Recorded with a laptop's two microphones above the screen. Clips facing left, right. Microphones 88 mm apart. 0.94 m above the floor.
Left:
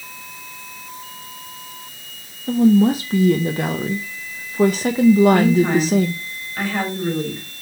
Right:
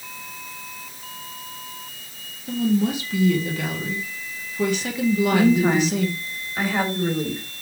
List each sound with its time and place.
2.5 s a woman speaking: 35° left (ahead or behind), 0.5 m
5.3 s a woman speaking: 10° right (ahead or behind), 3 m